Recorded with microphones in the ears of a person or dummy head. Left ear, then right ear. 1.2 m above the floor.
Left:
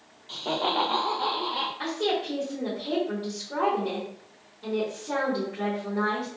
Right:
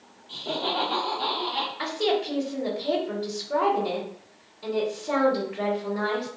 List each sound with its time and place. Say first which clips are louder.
0.3 s laughter: left 1 dB; 50° left (ahead or behind), 0.5 m; by 1.7 s 25° right (ahead or behind), 0.7 m
1.8 s a woman speaking: right 2 dB; 45° right (ahead or behind), 1.1 m